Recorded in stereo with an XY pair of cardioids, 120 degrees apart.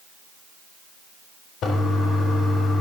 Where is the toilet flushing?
60° left, 4 m.